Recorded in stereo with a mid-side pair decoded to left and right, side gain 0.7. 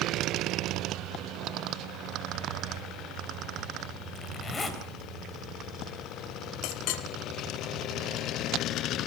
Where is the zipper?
25° left, 3.5 m.